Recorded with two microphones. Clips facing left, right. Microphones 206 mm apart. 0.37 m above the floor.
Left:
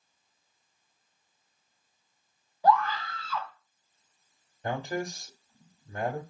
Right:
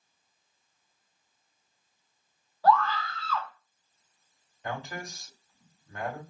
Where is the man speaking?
40° left (ahead or behind), 1.2 m.